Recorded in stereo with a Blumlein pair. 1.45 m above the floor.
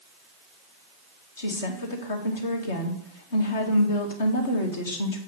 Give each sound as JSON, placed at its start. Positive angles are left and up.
{"t": 1.4, "sound": "a woman speaking", "azimuth_deg": 60, "distance_m": 1.9}